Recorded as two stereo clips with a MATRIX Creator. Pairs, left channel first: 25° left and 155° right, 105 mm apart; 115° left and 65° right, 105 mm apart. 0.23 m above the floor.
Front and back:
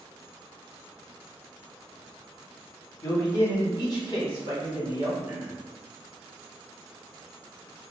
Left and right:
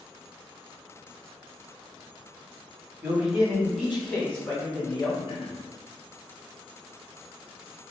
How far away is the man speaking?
About 1.1 m.